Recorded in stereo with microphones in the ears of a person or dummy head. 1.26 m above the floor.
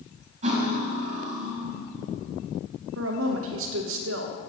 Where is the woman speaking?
75° right (ahead or behind), 0.9 m.